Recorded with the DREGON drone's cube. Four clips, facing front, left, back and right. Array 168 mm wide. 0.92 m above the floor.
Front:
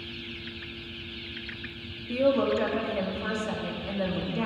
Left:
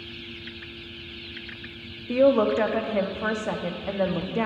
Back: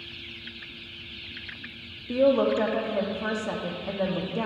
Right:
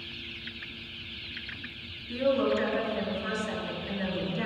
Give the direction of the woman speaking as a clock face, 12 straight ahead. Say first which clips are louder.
Left 7 dB, back 3 dB; 8 o'clock.